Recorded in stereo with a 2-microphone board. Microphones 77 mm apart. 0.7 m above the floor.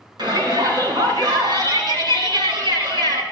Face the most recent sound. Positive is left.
turn(degrees=-75)  # may be behind; listen again after turning